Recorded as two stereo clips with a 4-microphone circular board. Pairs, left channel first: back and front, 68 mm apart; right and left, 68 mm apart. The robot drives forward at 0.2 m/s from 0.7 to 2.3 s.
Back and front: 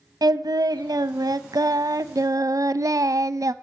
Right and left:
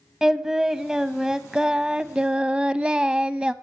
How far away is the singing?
About 0.8 m.